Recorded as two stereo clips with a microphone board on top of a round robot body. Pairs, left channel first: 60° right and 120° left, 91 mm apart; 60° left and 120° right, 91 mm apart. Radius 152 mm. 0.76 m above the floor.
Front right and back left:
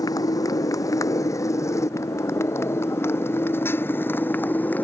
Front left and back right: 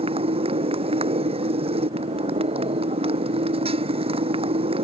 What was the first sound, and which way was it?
A motorcycle, 110° right.